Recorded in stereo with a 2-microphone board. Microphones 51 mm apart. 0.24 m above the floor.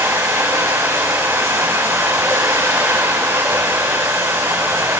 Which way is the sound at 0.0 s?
85° right.